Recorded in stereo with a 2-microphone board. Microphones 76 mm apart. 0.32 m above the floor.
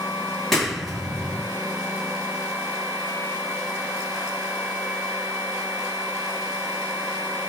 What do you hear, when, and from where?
0.5 s a clap: centre (ahead or behind), 4 m